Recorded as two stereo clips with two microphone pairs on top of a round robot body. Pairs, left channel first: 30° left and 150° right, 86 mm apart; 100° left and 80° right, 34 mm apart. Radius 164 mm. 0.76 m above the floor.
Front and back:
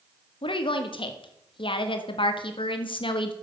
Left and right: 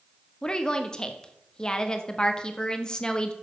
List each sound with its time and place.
0.4 s a woman speaking: 35° left, 1.7 m